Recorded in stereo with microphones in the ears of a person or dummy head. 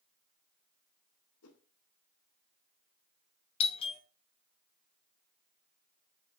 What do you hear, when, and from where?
1.4 s a whoosh: 80° left, 2.0 m
3.6 s a doorbell: 30° left (ahead or behind), 1.1 m